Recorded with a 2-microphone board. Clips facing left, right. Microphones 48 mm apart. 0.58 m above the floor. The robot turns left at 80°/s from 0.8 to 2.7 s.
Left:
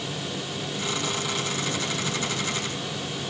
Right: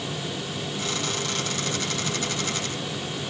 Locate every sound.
Only background noise.